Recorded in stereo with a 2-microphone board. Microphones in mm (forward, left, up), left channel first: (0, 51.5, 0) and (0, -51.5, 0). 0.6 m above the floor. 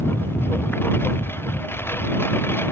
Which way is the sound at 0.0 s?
20° left (ahead or behind).